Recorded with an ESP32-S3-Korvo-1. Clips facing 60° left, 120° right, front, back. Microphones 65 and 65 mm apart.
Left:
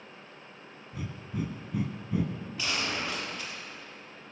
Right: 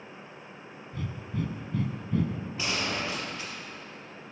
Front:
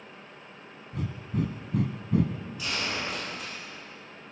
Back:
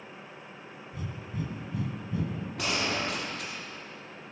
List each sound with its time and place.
0.9 s breathing: 15° right, 0.8 m
2.6 s a gunshot: 175° left, 3.5 m